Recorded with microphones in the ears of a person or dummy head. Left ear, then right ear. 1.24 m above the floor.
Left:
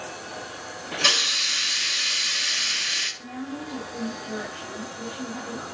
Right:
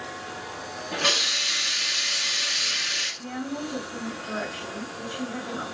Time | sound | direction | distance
0.9 | a hiss | 20° left (ahead or behind) | 2.5 m
3.2 | a woman speaking | 45° right (ahead or behind) | 2.5 m